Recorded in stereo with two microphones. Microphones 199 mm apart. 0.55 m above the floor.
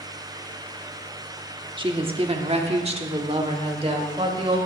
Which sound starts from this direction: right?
A woman speaking, at 1.8 s.